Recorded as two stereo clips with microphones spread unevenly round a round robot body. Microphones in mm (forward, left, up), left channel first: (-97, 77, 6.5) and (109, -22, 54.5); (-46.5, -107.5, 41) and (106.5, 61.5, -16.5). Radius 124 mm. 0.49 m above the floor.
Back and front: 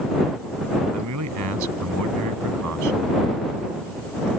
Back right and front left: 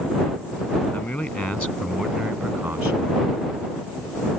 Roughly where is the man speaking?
Ahead right.